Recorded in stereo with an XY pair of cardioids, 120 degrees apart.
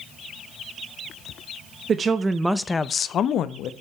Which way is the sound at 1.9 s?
40° right.